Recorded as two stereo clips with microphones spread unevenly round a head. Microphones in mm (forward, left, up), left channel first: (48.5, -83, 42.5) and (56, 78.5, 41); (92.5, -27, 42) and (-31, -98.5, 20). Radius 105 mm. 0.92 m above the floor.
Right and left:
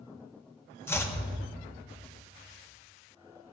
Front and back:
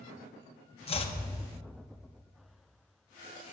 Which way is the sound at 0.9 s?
20° right.